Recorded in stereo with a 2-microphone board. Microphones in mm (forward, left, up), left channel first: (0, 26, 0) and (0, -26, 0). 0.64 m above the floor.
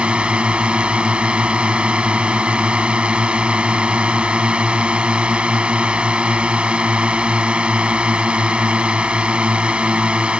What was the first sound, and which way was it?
A drone, 25° right (ahead or behind).